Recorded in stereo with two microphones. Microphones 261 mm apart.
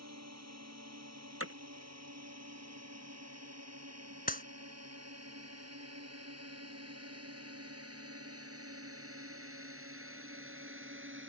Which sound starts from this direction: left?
A clap, at 4.3 s.